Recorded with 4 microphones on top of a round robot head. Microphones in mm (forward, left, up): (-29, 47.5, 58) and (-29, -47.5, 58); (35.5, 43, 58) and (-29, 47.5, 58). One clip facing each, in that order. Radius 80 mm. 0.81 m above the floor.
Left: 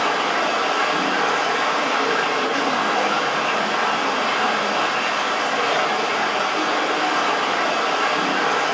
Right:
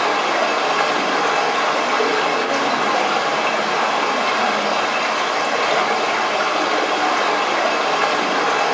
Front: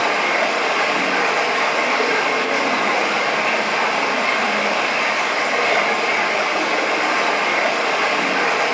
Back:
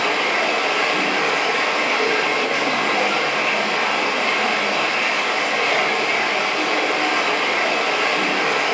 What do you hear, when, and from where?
0.0 s running water: 75° right, 1.8 m